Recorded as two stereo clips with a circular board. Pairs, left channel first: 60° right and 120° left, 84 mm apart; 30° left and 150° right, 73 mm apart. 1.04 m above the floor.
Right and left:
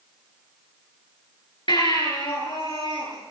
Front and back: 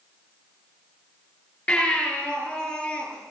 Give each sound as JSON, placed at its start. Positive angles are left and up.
{"t": 1.7, "sound": "a baby crying", "azimuth_deg": -45, "distance_m": 7.5}